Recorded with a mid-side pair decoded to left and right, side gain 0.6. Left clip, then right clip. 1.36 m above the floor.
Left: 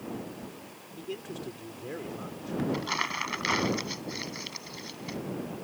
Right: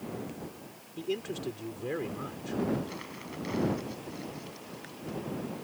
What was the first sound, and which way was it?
A man speaking, 30° right.